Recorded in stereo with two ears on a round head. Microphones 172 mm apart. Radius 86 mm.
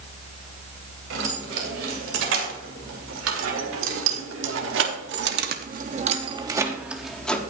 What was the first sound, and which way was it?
Keys jangling, 70° right (ahead or behind).